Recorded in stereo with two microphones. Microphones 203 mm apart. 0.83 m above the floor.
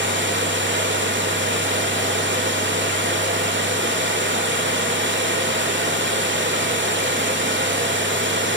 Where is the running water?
75° right (ahead or behind), 3 m.